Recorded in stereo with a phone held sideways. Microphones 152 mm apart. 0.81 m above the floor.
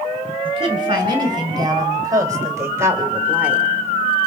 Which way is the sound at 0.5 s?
35° right (ahead or behind).